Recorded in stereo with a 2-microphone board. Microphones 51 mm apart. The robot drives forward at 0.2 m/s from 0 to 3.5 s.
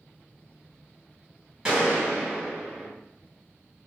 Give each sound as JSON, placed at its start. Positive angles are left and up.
{"t": 1.6, "sound": "a gunshot", "side_deg": -20, "distance_m": 1.1}